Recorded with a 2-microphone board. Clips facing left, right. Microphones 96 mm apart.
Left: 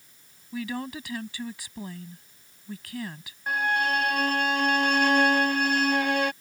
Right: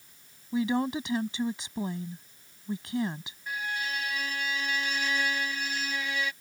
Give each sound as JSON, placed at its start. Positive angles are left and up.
{"t": 0.5, "sound": "a woman speaking", "side_deg": -25}
{"t": 3.5, "sound": "a violin", "side_deg": 60}